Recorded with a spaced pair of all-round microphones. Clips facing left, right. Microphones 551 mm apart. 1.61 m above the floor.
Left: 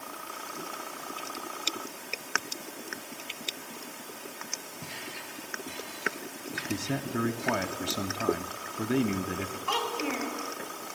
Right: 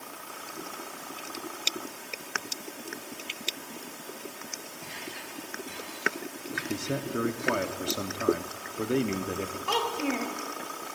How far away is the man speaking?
About 0.6 m.